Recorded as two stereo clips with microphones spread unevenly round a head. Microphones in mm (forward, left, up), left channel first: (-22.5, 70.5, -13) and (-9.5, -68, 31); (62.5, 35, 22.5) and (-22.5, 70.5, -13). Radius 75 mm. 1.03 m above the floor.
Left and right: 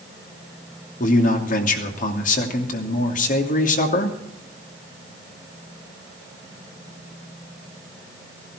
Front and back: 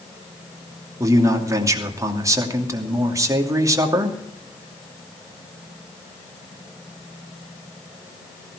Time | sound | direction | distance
1.0 | a man speaking | 110° left | 2.5 m